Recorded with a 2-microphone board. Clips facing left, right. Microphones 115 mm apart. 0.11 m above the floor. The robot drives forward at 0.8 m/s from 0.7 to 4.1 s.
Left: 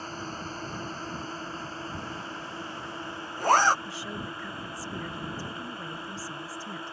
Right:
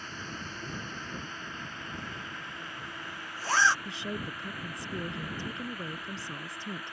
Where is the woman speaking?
20° right (ahead or behind).